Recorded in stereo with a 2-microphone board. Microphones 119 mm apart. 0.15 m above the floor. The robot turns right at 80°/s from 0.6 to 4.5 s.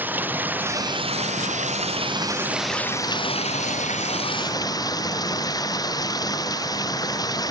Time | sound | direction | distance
0.0 | running water | 165° right | ?